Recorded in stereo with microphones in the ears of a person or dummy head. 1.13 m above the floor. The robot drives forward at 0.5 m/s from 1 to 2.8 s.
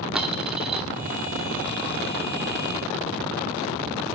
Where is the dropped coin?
5° right (ahead or behind), 0.8 m.